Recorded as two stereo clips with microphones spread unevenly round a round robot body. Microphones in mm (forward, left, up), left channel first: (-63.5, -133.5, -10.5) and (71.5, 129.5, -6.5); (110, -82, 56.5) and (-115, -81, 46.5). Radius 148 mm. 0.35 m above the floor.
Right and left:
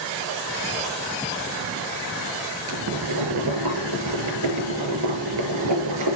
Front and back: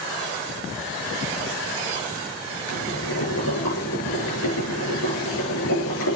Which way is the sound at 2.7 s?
35° left.